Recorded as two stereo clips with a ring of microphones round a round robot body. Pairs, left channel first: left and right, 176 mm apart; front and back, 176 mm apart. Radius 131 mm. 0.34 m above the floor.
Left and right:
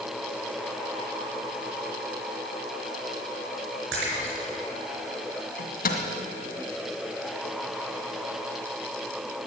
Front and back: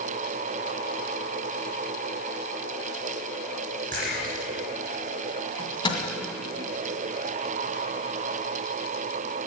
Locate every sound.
3.9 s a splash: 120° right, 3.5 m
5.6 s a microwave: 65° left, 2 m